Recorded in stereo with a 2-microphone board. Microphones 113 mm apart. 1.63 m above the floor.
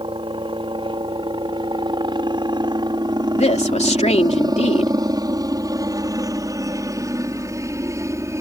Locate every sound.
0.0 s a helicopter: 50° right (ahead or behind); by 8.4 s 25° right (ahead or behind)
3.3 s a woman speaking: 80° left